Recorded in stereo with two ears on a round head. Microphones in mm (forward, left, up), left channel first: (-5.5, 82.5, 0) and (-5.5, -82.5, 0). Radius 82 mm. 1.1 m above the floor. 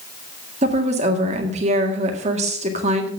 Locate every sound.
0.6 s a woman speaking: 40° right (ahead or behind), 1.9 m